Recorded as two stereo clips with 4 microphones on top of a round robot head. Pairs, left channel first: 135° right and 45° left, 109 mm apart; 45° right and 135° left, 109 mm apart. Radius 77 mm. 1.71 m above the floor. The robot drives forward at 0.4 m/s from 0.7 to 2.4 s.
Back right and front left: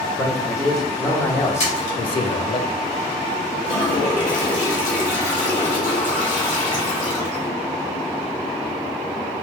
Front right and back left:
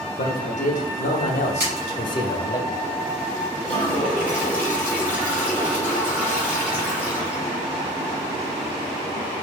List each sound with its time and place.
0.2 s a man speaking: 45° right, 0.7 m; by 2.6 s 105° right, 0.5 m
1.6 s a splash: 150° right, 1.5 m; by 2.0 s 155° right, 1.5 m
3.6 s a toilet flushing: 145° right, 0.8 m